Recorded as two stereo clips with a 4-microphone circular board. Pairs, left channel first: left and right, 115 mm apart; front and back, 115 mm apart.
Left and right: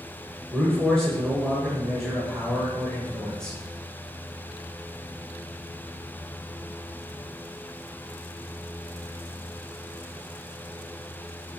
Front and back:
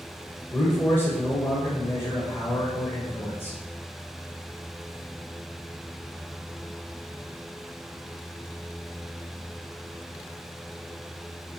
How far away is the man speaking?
About 1.0 m.